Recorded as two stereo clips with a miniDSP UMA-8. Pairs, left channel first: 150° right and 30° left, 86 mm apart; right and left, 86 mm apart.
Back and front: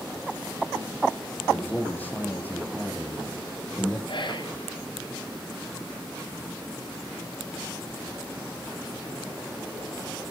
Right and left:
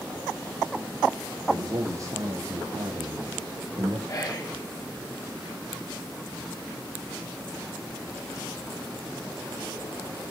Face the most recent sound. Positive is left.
turn(degrees=-140)